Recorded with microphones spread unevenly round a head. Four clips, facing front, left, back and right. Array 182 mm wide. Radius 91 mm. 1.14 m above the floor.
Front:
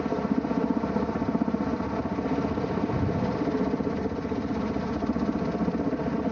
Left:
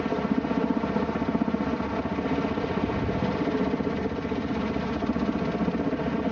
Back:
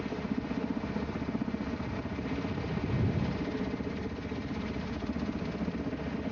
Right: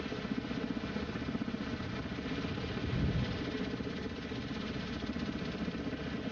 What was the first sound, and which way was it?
A helicopter, 50° left.